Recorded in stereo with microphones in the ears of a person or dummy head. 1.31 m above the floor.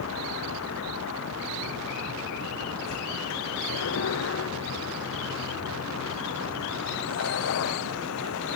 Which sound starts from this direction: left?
A vehicle, at 0.0 s.